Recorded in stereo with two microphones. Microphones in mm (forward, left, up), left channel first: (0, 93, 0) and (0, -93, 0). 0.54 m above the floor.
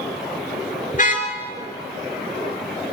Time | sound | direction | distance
0.9 | a car horn | 50° left (ahead or behind) | 4 m